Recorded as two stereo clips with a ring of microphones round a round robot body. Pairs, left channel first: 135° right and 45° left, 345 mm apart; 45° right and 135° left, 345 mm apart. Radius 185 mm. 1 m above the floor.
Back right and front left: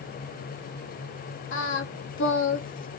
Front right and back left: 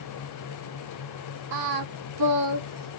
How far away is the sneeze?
No sneeze in this recording.